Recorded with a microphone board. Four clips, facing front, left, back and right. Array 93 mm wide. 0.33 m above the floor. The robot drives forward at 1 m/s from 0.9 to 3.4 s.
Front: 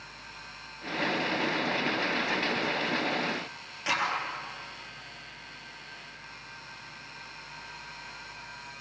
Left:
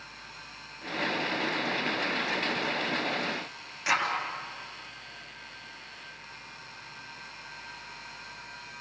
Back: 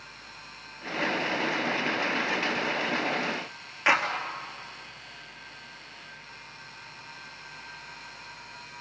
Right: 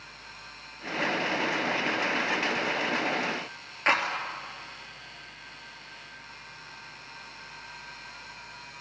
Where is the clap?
140° right, 4 m.